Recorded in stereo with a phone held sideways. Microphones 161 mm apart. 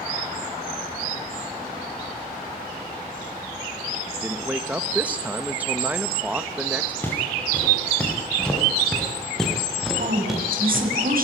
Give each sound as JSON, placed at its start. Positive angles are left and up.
{"t": 4.1, "sound": "a man speaking", "side_deg": -10, "distance_m": 1.4}
{"t": 7.0, "sound": "footsteps", "side_deg": 10, "distance_m": 8.0}
{"t": 10.0, "sound": "a woman speaking", "side_deg": -65, "distance_m": 7.5}